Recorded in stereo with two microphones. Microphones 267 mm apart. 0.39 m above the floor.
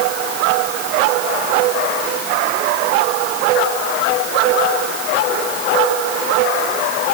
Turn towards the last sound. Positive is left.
No sound to turn to.